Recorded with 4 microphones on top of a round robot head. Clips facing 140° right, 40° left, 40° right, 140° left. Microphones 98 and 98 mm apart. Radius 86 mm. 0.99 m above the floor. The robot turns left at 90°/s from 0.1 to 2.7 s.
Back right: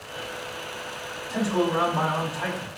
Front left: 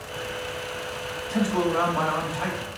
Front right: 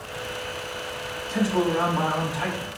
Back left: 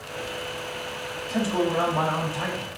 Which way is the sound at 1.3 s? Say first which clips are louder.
Even, front right 1 dB; straight behind.